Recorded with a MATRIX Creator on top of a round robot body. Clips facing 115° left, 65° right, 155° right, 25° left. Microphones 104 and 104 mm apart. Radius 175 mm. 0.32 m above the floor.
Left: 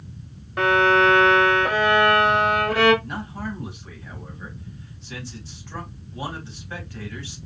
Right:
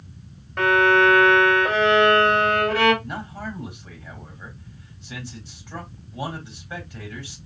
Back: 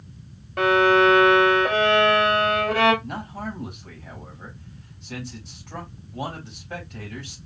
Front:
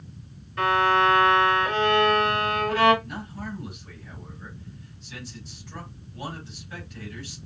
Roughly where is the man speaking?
Behind right.